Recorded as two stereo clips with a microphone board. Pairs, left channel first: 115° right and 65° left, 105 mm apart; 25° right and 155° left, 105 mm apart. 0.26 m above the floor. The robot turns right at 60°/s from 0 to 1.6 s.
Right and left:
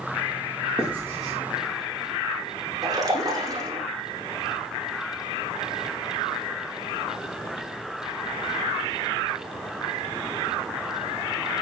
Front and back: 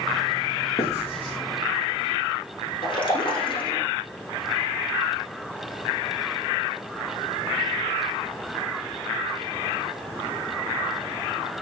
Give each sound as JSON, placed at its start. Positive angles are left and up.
{"t": 0.8, "sound": "writing", "azimuth_deg": -15, "distance_m": 8.0}
{"t": 2.8, "sound": "a splash", "azimuth_deg": 15, "distance_m": 8.0}